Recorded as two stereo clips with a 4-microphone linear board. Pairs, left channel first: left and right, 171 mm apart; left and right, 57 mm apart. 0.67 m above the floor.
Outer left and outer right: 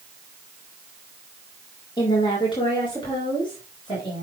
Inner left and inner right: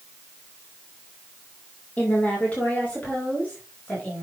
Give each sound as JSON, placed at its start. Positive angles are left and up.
{"t": 2.0, "sound": "a woman speaking", "side_deg": 25, "distance_m": 2.5}